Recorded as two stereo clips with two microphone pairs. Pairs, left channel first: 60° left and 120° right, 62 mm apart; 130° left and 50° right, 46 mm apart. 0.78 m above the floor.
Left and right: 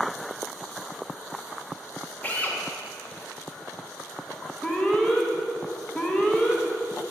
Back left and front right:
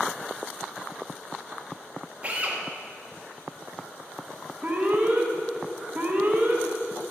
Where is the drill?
5° left, 1.6 m.